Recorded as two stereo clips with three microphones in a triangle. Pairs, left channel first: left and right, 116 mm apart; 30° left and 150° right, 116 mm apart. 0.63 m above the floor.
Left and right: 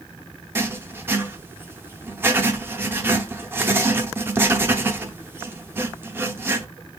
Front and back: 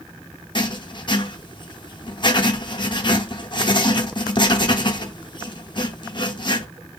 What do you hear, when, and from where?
0.6 s writing: 20° right, 0.5 m